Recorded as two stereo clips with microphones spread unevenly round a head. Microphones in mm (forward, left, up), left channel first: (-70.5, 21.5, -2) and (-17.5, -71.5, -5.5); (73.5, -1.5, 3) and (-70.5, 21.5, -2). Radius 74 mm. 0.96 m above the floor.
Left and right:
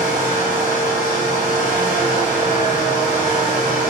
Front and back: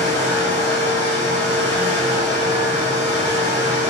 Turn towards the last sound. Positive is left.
turn(degrees=-35)